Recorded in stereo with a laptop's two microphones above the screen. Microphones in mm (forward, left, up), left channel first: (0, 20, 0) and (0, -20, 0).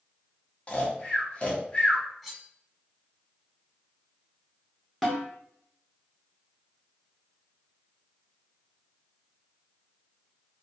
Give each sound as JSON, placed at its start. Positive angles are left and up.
{"t": 0.7, "sound": "snoring", "side_deg": 30, "distance_m": 0.5}
{"t": 2.2, "sound": "cutlery clinking", "side_deg": 0, "distance_m": 1.3}
{"t": 5.0, "sound": "a snare drum", "side_deg": 0, "distance_m": 1.1}